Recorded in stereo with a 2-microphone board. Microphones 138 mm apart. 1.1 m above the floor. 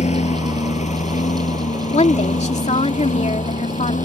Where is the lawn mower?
55° left (ahead or behind); by 4.1 s 65° left (ahead or behind).